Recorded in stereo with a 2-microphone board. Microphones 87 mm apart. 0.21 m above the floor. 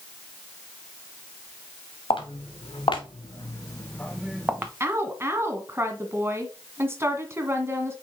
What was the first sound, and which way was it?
Footsteps, 85° left.